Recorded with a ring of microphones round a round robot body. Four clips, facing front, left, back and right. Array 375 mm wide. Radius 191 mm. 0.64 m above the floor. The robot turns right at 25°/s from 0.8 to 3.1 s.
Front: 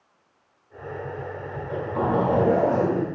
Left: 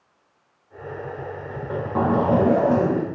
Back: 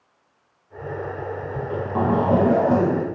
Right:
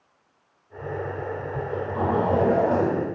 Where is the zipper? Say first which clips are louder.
Left 5 dB, back 3 dB; 125° left, 6.5 m; by 3.0 s 165° left, 6.5 m.